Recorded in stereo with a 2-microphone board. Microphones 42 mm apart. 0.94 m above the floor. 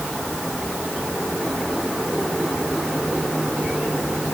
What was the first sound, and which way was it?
Only background noise.